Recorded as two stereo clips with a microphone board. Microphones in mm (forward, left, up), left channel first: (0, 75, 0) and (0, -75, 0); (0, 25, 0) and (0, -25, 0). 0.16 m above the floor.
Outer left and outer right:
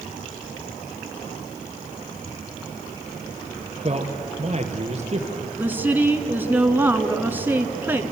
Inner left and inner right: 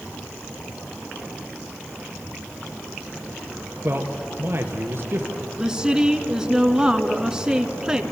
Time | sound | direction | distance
3.8 | a man speaking | 45° right (ahead or behind) | 3 m
5.6 | a woman speaking | 15° right (ahead or behind) | 2 m